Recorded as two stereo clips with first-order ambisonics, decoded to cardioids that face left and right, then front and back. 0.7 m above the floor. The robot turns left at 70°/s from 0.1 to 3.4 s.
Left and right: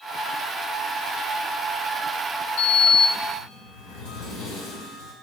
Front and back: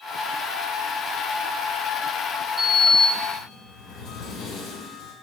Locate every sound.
2.6 s a sliding door: 105° left, 2.5 m; by 5.1 s 50° left, 2.5 m